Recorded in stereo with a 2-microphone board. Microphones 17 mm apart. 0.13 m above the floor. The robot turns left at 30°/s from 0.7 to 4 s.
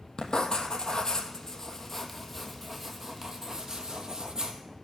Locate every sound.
0.2 s writing: 55° left, 1.1 m; by 4.6 s 45° right, 1.1 m